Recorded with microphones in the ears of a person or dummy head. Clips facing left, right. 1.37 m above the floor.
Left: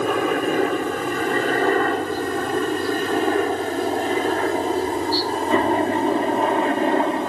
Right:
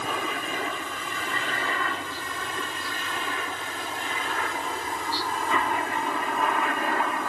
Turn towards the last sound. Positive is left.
turn(degrees=20)  # may be behind; listen again after turning